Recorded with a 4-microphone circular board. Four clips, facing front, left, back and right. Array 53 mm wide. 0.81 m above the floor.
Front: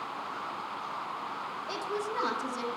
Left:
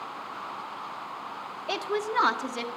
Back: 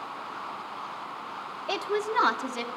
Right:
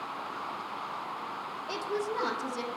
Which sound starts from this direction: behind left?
A woman speaking, at 1.7 s.